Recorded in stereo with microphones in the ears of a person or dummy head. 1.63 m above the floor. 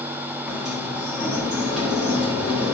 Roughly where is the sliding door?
Centre.